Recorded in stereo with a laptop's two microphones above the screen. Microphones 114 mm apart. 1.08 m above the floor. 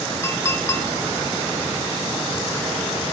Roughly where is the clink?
Left.